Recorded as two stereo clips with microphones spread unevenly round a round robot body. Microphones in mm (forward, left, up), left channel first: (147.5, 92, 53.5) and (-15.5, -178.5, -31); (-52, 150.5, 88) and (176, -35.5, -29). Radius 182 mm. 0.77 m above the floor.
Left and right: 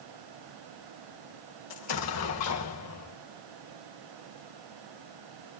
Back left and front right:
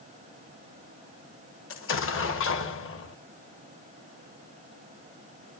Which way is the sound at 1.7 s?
100° left.